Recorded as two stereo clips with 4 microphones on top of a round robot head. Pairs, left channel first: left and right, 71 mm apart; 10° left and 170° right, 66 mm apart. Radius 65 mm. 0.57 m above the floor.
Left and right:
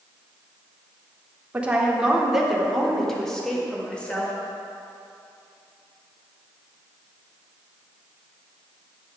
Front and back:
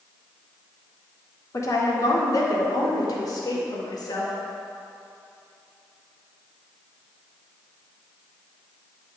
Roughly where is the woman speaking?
Ahead.